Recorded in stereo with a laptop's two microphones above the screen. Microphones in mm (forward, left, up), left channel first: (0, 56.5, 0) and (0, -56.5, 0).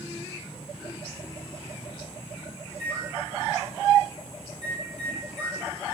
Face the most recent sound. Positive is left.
turn(degrees=65)  # may be behind; listen again after turning